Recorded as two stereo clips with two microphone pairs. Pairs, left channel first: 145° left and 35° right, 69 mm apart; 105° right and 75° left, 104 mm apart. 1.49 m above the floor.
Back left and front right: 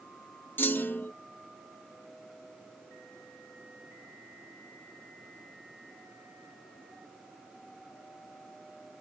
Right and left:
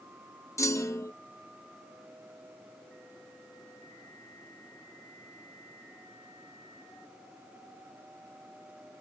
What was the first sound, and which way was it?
A clunk, 160° right.